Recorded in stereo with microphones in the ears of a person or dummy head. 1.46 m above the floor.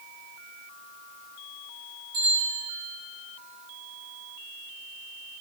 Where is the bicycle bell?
45° right (ahead or behind), 8.5 m.